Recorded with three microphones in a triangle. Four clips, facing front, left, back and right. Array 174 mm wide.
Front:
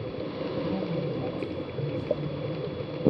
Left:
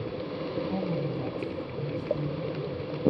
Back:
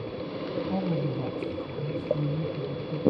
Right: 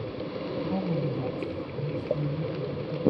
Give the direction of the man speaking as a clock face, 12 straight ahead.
6 o'clock.